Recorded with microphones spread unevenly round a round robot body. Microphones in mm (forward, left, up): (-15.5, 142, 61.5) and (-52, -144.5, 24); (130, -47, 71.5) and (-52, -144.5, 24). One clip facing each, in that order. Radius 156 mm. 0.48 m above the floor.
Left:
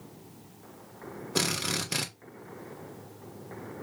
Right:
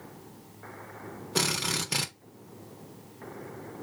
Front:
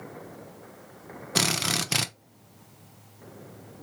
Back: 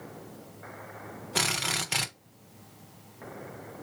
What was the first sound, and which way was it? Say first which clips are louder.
A drill: even, front 5 dB; 10° right.